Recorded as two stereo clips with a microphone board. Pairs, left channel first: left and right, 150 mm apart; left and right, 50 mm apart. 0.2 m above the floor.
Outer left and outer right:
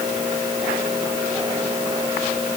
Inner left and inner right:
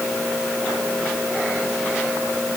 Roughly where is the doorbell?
No doorbell in this recording.